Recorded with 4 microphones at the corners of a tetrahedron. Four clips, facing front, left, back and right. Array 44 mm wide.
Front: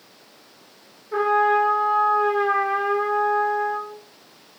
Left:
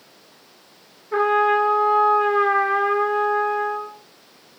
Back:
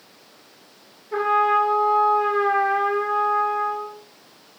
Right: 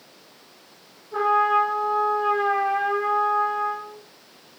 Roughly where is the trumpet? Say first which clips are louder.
Left 2 dB, even; left.